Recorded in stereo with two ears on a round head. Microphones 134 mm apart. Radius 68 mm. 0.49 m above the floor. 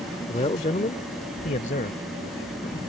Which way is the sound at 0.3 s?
35° left (ahead or behind).